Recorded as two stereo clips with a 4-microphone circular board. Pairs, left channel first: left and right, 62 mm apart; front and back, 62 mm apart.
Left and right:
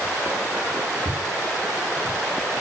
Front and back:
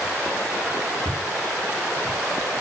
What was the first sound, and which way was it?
Footsteps, 90° right.